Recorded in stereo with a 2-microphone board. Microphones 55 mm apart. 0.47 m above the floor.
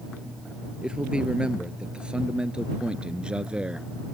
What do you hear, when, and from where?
0.8 s a man speaking: 15° right (ahead or behind); by 3.9 s 20° right (ahead or behind)